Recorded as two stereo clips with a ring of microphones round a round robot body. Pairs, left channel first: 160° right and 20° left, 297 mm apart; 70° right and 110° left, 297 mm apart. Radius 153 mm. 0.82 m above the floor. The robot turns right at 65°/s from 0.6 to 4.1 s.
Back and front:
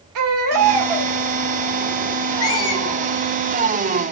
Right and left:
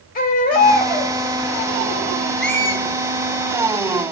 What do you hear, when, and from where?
0.1 s a baby crying: 5° right, 1.9 m; by 1.1 s 30° left, 1.9 m
2.4 s a squeak: 160° right, 1.5 m; by 2.8 s 130° right, 1.5 m